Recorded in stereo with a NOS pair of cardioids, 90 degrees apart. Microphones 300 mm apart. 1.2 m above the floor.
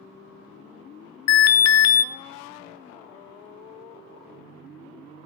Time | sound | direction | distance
1.3 | an alarm | 55° left | 0.6 m